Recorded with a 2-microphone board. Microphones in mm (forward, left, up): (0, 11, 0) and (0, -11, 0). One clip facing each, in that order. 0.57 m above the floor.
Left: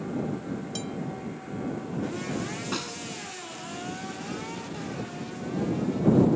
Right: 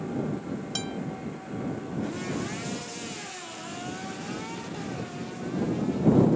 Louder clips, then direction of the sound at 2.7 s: Left 4 dB; 60° left (ahead or behind).